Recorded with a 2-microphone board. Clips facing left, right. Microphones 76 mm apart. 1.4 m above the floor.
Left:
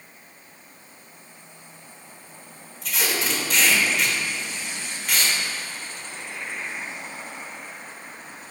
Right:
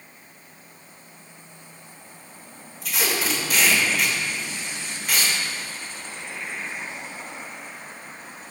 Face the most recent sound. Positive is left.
turn(degrees=0)  # may be behind; listen again after turning